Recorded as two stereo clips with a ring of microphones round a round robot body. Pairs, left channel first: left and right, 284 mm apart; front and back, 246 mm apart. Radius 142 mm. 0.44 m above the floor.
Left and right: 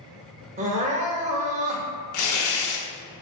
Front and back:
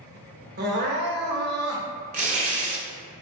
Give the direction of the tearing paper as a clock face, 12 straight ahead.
8 o'clock.